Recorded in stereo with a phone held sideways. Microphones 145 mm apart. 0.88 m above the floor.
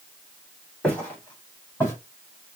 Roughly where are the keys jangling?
I don't hear keys jangling.